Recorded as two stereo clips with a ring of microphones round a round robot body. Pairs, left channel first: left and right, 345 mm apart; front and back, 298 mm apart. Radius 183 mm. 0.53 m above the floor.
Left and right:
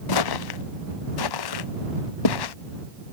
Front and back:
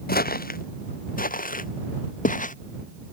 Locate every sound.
0.1 s footsteps: 60° left; by 2.5 s 65° left